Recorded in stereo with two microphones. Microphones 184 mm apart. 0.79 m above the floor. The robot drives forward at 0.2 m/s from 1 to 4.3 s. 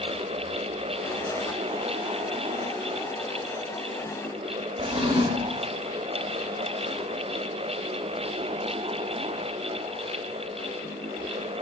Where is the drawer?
30° right (ahead or behind), 1.1 m.